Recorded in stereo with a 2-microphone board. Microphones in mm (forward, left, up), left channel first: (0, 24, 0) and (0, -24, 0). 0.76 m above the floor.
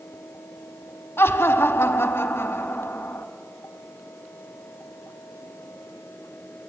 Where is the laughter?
60° left (ahead or behind), 0.9 m.